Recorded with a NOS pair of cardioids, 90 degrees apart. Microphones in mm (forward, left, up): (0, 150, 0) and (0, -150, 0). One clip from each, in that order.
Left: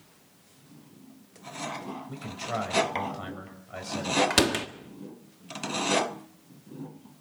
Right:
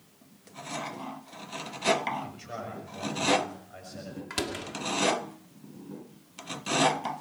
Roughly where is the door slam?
Ahead left.